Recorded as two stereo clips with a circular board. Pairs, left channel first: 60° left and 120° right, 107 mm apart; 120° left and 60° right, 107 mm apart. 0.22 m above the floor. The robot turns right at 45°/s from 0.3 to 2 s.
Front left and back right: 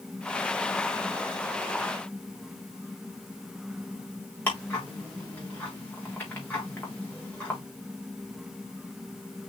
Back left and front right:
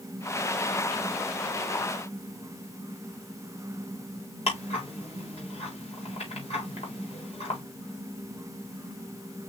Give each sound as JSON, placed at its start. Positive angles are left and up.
{"t": 4.5, "sound": "ticking", "azimuth_deg": 135, "distance_m": 4.5}